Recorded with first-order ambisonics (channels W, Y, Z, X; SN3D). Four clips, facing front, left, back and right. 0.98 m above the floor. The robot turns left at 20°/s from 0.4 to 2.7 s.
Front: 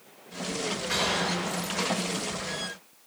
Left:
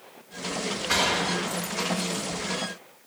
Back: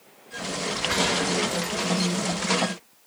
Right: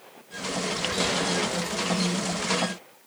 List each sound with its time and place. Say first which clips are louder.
0.9 s a gunshot: left 4 dB, back 3 dB; 100° left, 2.5 m; by 2.3 s 70° left, 2.5 m